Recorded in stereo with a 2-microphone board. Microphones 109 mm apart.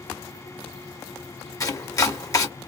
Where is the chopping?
30° left (ahead or behind), 0.7 m.